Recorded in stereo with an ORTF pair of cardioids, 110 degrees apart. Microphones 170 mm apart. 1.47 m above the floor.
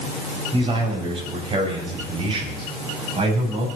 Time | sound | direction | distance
0.5 | a man speaking | 30° right | 7.5 m